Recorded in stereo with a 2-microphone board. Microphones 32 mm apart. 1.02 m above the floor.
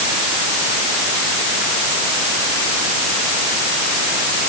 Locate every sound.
Only background noise.